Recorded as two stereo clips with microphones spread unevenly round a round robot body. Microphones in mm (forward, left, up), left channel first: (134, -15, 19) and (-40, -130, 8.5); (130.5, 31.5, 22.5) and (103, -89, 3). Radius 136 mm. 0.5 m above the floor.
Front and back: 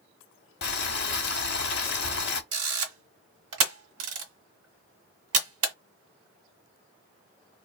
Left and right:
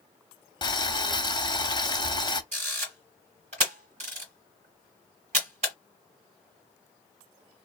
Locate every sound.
0.6 s boiling: 25° left, 0.9 m
2.5 s a camera shutter: 165° right, 1.4 m